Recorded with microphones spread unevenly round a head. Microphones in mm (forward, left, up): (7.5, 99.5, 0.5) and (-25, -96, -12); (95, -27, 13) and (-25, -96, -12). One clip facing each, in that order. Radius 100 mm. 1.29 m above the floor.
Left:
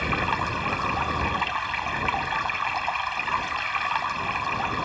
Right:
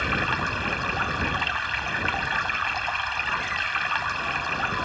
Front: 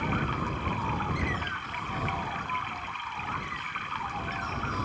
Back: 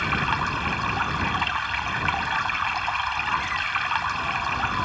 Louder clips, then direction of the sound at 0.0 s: Left 1 dB, back 4 dB; straight behind.